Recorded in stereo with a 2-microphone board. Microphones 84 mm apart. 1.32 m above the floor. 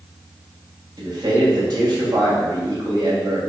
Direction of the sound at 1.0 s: 50° right (ahead or behind).